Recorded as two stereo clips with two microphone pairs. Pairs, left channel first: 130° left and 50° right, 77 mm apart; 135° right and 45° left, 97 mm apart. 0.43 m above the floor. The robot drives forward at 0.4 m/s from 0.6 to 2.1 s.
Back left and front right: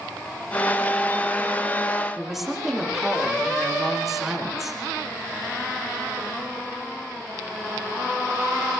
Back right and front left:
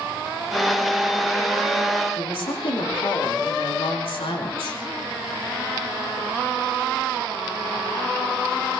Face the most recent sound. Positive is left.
turn(degrees=-135)